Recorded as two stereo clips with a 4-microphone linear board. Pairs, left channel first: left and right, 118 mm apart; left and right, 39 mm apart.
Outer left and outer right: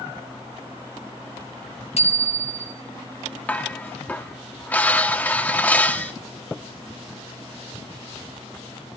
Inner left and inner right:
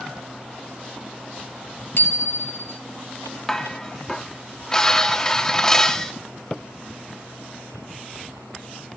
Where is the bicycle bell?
65° left (ahead or behind), 4.5 m.